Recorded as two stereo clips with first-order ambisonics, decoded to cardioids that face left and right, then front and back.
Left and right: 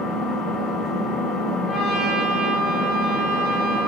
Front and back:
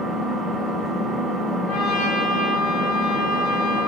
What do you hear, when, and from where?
0.0 s an engine running: 75° left, 1.0 m
1.7 s a trumpet: 15° right, 1.8 m